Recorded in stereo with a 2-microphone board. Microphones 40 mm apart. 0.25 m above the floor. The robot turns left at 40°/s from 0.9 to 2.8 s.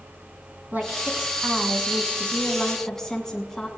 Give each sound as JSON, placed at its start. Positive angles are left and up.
{"t": 0.7, "sound": "a woman speaking", "azimuth_deg": -125, "distance_m": 2.5}